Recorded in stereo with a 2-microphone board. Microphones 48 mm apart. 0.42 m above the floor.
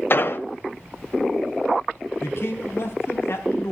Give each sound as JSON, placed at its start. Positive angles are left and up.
{"t": 0.1, "sound": "an explosion", "side_deg": 50, "distance_m": 1.2}
{"t": 2.2, "sound": "a man speaking", "side_deg": 60, "distance_m": 3.5}